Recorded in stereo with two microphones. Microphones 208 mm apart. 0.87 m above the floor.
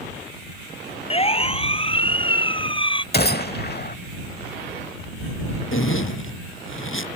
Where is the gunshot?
50° left (ahead or behind).